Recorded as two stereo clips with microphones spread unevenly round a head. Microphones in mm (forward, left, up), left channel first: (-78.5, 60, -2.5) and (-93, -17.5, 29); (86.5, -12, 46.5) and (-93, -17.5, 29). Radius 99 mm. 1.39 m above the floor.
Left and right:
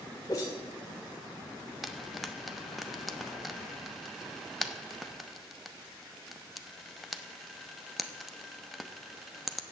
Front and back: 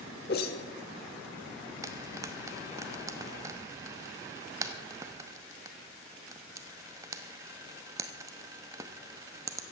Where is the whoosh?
Straight ahead, 1.4 m.